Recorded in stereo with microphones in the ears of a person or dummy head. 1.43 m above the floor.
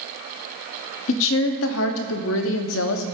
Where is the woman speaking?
75° left (ahead or behind), 0.6 m.